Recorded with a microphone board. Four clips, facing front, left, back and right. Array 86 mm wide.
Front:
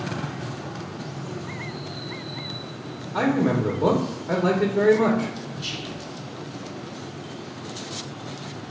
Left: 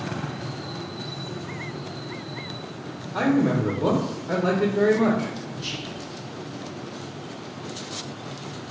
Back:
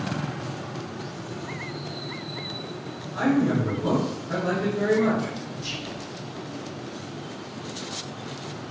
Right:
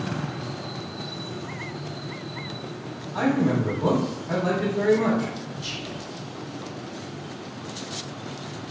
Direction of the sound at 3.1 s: 25° left.